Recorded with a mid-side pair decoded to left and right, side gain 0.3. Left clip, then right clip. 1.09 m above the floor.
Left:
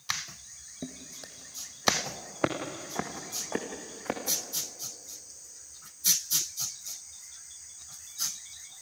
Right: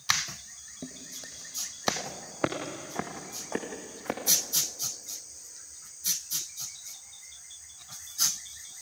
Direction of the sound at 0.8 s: 30° left.